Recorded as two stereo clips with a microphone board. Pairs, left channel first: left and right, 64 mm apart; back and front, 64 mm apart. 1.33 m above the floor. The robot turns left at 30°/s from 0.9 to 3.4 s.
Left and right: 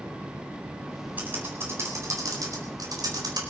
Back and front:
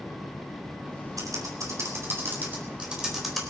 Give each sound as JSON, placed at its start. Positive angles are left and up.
{"t": 1.2, "sound": "typing on a keyboard", "azimuth_deg": -25, "distance_m": 4.5}